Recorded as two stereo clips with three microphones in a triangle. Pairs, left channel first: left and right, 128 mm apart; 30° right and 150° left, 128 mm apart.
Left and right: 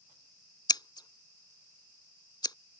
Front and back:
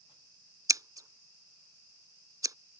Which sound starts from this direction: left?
Scissors, at 0.7 s.